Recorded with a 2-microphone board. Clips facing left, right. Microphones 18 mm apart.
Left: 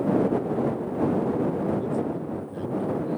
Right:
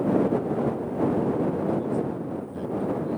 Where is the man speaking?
5° left (ahead or behind); by 3.2 s centre (ahead or behind).